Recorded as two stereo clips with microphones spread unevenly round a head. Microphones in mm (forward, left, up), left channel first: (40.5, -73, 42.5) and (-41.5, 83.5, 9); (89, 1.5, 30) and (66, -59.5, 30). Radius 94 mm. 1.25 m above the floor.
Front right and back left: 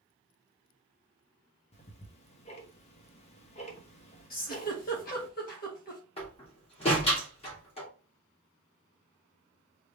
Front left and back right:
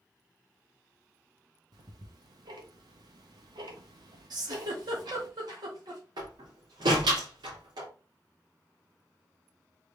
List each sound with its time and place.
1.7 s ticking: 115° right, 0.9 m
4.3 s a giggle: 105° right, 1.9 m
6.2 s a door slam: 120° right, 2 m